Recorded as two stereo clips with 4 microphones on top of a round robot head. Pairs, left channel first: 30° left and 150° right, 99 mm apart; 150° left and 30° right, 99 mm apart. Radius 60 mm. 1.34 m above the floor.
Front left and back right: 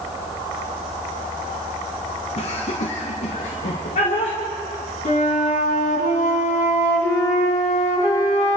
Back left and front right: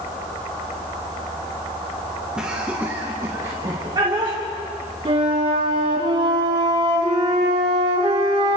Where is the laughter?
50° left, 1.8 m; by 4.4 s 15° left, 2.5 m.